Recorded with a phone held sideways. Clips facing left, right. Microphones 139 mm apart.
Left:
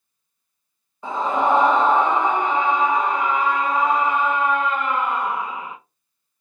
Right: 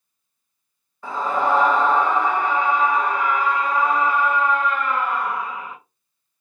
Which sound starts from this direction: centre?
A scream, at 1.0 s.